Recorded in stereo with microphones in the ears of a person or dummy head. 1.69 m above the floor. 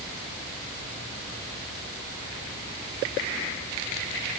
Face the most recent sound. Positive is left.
No sound to turn to.